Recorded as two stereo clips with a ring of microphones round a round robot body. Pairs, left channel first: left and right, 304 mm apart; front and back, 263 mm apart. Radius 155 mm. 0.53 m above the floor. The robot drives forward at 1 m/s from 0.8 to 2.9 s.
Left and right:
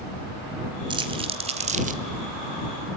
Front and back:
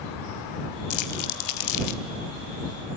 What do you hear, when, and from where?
0.9 s crumpling: 15° right, 2.5 m; by 2.0 s 25° right, 1.5 m